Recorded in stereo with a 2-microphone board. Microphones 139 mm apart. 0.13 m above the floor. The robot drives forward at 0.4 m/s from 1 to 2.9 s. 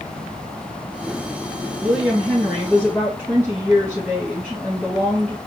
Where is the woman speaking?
Centre (ahead or behind), 1.8 m.